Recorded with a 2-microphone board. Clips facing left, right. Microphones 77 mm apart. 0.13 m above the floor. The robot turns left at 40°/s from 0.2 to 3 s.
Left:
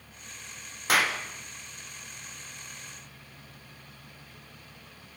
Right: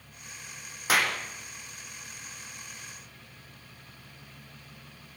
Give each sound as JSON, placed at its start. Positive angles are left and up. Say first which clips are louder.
{"t": 0.9, "sound": "a clap", "louder": "left 1 dB", "side_deg": 0, "distance_m": 4.0}